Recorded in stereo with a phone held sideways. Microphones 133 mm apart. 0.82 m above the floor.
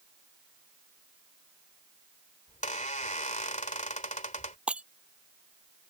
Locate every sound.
2.5 s a squeak: 70° left (ahead or behind)
4.7 s breaking glass: 10° right (ahead or behind)